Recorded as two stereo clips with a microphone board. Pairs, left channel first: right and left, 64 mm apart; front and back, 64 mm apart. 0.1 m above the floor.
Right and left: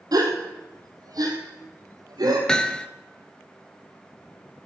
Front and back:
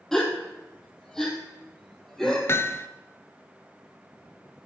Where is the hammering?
20° right, 0.8 m.